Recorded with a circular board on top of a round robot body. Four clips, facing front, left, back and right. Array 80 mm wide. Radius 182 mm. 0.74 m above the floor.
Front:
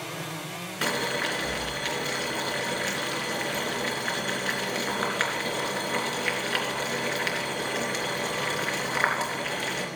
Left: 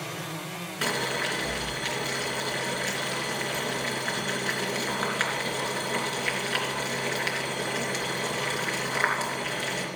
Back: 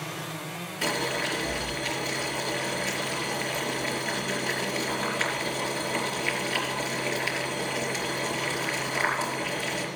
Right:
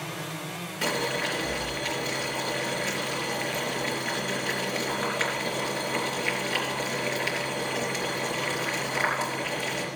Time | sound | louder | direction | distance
0.8 | boiling | right 1 dB, front 1 dB | 25° left | 3.5 m